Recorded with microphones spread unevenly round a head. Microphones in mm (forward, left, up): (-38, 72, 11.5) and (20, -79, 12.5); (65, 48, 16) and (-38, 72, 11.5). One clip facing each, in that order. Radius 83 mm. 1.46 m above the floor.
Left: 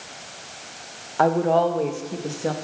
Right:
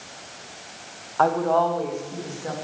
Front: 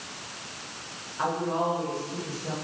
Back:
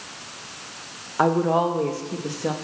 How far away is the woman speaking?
About 1.4 m.